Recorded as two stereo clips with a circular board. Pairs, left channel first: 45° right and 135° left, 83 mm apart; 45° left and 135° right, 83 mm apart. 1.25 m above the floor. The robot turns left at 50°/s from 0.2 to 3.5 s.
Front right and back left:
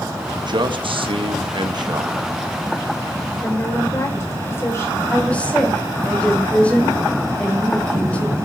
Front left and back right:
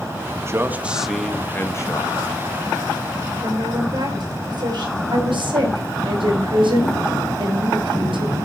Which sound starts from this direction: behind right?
A woman speaking, at 5.1 s.